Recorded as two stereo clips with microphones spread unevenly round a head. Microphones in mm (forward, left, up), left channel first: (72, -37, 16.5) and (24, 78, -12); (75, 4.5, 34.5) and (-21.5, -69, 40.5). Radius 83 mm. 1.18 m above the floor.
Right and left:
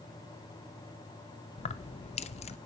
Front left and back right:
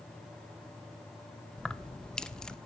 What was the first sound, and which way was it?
Keys jangling, 50° right.